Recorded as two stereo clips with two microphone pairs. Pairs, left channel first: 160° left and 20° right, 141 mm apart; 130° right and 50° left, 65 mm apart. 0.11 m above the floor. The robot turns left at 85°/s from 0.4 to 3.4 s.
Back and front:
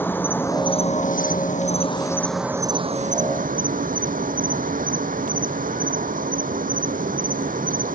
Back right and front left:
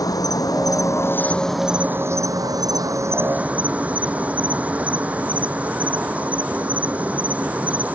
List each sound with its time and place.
0.0 s an insect: 125° right; by 7.9 s 20° right